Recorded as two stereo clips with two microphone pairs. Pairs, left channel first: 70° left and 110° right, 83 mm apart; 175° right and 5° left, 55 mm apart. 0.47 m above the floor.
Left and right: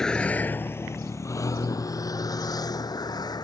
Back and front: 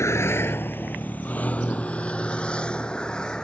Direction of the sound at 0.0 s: 155° left.